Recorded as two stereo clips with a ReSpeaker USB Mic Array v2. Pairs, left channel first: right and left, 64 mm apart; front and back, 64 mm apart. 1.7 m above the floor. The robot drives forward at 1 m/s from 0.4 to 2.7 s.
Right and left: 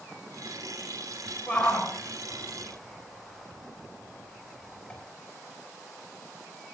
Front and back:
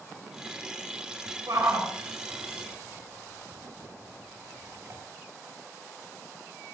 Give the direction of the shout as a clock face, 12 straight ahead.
5 o'clock.